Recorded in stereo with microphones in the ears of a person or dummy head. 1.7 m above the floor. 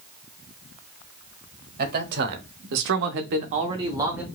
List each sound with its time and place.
1.8 s a man speaking: 55° right (ahead or behind), 1.0 m; by 4.3 s 5° right (ahead or behind), 0.7 m